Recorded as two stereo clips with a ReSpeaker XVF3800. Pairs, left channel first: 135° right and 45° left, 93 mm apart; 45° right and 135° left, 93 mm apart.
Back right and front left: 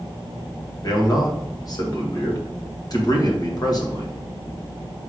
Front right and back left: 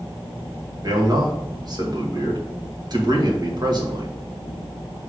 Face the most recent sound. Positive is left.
turn(degrees=180)